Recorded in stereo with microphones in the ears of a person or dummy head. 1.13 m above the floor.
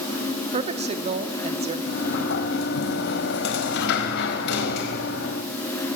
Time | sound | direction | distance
0.5 | a woman speaking | 35° right (ahead or behind) | 1.9 m
1.9 | a sliding door | 70° left (ahead or behind) | 3 m